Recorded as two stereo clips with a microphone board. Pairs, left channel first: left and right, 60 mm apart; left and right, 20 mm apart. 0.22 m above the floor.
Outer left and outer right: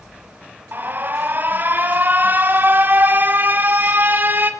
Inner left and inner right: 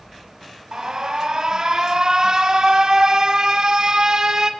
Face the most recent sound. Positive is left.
turn(degrees=-35)  # may be behind; listen again after turning